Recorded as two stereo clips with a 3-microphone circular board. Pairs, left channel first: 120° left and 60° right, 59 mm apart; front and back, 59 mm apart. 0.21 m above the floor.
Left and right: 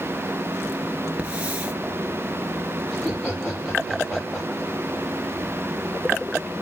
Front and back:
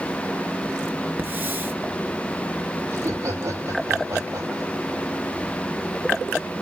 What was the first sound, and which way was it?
A hiss, 125° right.